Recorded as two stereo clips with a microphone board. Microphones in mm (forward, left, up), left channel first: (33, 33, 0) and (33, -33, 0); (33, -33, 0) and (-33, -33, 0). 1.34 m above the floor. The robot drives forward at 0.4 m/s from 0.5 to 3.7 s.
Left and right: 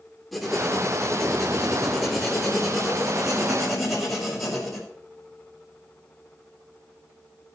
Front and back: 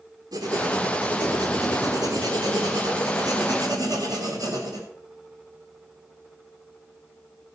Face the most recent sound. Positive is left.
turn(degrees=180)